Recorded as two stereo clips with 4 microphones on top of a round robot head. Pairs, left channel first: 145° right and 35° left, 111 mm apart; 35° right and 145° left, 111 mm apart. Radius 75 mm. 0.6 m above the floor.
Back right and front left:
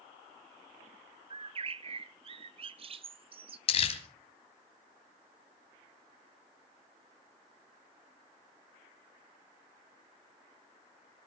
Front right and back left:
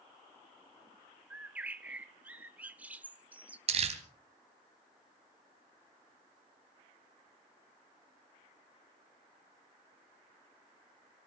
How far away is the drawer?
No drawer in this recording.